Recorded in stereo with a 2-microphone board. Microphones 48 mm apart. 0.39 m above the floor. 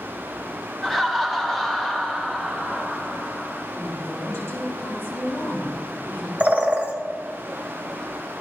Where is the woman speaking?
65° left (ahead or behind), 3 m.